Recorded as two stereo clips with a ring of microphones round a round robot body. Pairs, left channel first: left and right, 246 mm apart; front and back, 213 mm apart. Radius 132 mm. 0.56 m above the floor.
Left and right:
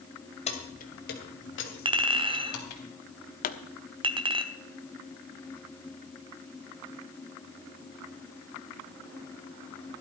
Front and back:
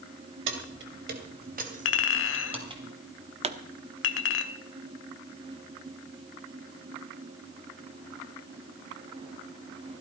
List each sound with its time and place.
0.5 s keys jangling: 155° left, 2.5 m; by 2.8 s 110° left, 3 m
1.9 s a clink: 20° right, 1.2 m
3.4 s a pop: 130° left, 1.1 m